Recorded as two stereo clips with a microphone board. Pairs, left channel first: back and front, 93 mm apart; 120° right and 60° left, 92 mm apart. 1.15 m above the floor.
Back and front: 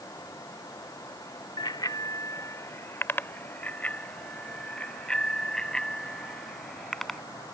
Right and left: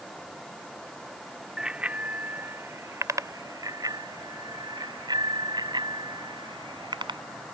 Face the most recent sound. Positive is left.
turn(degrees=95)